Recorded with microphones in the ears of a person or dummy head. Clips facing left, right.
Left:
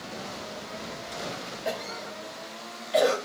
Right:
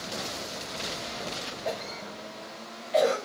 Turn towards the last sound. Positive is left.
turn(degrees=10)  # may be behind; listen again after turning